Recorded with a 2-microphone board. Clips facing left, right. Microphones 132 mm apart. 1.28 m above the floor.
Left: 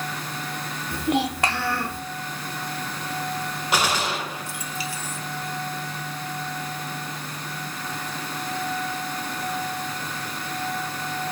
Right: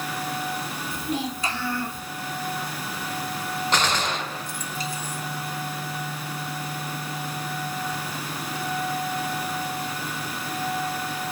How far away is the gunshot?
About 0.7 m.